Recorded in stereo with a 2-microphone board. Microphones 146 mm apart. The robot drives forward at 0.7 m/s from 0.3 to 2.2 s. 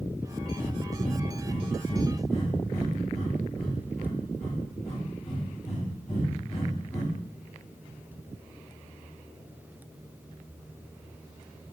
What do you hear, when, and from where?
0.6 s breathing: 10° left (ahead or behind), 0.6 m; by 7.1 s 5° left (ahead or behind), 1.8 m